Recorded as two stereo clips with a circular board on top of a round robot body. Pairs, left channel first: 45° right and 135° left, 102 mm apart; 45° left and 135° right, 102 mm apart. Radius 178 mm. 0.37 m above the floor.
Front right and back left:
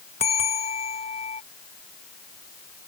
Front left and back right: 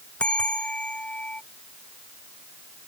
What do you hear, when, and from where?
0.2 s a bell: 35° right